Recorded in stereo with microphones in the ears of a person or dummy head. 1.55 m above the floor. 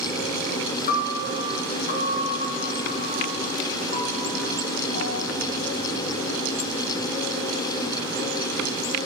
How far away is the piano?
About 3 m.